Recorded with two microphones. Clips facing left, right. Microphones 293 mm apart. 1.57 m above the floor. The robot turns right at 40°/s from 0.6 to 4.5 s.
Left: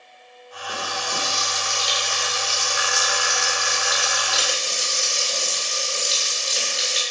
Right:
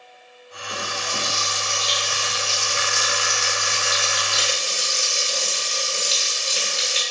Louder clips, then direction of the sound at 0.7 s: Even; 30° left.